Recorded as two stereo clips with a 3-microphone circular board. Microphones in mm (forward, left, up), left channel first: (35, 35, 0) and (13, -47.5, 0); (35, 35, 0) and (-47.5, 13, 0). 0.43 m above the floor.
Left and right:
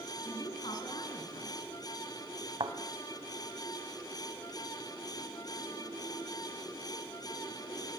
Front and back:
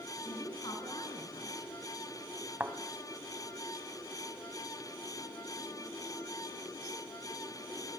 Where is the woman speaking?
55° left, 5 m.